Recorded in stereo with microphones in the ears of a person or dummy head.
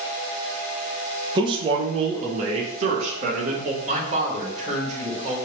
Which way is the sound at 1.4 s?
25° right (ahead or behind).